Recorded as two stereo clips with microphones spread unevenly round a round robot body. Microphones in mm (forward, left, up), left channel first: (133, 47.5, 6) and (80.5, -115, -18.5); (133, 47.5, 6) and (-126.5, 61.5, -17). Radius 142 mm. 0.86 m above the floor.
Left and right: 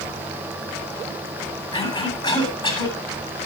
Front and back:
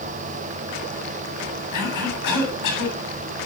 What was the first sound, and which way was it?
A cough, 5° left.